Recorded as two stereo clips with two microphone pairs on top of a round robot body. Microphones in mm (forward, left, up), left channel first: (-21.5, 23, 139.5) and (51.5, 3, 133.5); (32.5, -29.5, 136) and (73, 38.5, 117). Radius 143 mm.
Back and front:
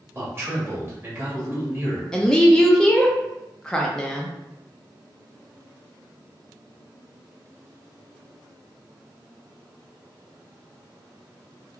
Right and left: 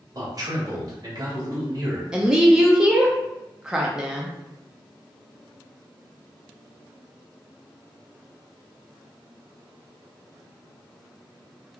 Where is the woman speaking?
85° left, 0.5 m.